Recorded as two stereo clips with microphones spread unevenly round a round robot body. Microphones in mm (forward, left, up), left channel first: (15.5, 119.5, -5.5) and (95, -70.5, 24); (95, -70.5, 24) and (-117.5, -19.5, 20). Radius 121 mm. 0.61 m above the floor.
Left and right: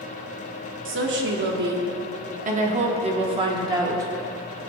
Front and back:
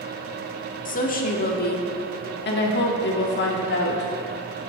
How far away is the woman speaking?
About 1.8 m.